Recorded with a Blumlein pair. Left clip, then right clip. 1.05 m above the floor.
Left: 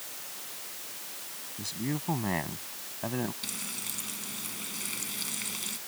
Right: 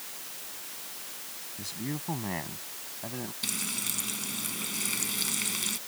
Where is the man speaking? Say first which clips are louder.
Left 3 dB; 5° left; by 3.3 s 20° left.